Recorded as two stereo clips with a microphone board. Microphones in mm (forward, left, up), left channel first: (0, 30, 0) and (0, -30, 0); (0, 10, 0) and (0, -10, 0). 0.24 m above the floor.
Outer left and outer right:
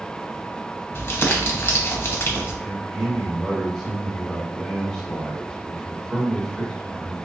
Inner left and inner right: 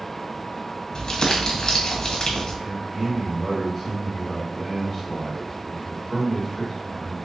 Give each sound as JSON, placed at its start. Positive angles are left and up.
{"t": 0.9, "sound": "crumpling", "side_deg": 40, "distance_m": 1.1}
{"t": 2.6, "sound": "a man speaking", "side_deg": 5, "distance_m": 1.4}